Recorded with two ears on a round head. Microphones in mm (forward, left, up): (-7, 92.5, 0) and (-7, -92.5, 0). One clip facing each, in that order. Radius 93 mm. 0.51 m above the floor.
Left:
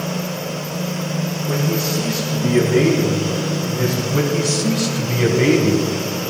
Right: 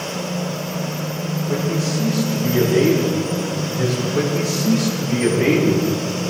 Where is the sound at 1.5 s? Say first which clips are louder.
Even; 55° left (ahead or behind), 6 m.